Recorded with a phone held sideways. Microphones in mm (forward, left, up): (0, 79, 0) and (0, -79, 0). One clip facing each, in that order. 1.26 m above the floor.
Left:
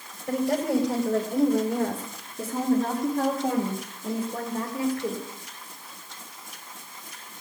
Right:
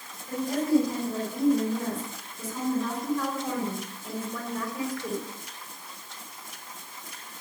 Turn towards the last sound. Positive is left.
turn(degrees=25)  # may be behind; listen again after turning